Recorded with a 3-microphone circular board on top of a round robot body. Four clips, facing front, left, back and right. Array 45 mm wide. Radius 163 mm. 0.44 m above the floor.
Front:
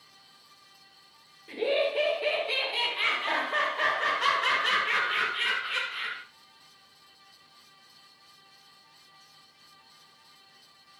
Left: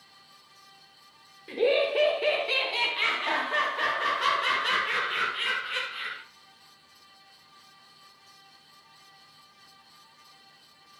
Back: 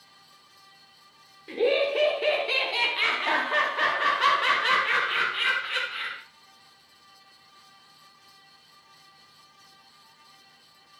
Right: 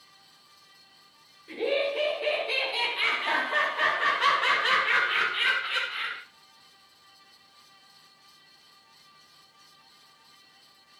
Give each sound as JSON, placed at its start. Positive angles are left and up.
{"t": 1.5, "sound": "laughter", "azimuth_deg": 135, "distance_m": 2.0}